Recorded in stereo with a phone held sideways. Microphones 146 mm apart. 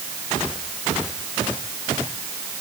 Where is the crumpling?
I don't hear crumpling.